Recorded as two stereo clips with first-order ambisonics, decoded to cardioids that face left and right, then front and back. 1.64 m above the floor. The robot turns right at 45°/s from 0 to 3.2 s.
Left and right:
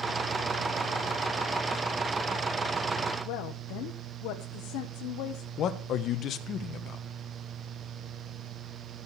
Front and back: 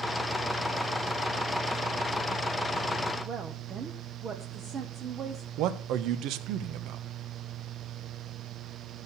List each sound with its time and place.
3.2 s a woman speaking: 115° left, 1.1 m
5.6 s a man speaking: 145° left, 1.2 m